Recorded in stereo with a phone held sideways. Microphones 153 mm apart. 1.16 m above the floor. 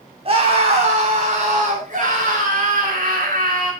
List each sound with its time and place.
0.2 s a scream: 40° right (ahead or behind), 3.5 m; by 3.7 s 65° right (ahead or behind), 5 m